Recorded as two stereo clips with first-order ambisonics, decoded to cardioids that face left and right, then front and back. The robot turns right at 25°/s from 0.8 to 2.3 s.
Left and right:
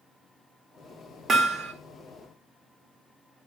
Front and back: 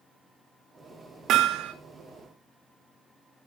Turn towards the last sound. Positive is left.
turn(degrees=-130)